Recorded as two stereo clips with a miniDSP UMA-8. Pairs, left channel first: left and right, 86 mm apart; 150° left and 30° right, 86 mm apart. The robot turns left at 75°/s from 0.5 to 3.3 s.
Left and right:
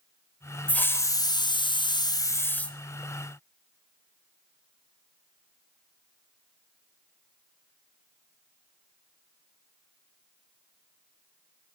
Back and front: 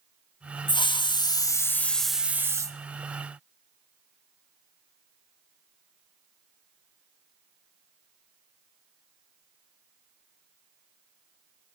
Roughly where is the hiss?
Behind.